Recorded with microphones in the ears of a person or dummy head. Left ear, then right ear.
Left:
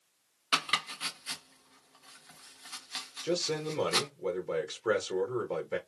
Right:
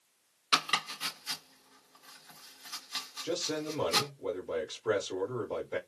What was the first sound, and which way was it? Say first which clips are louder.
Chopping: right 1 dB; 10° left (ahead or behind).